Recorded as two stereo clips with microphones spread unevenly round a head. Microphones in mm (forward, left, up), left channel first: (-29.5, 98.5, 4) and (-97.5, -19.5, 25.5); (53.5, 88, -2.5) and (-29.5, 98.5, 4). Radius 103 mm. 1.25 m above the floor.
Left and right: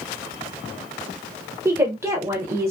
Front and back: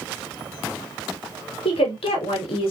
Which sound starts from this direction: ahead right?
A woman speaking, at 1.6 s.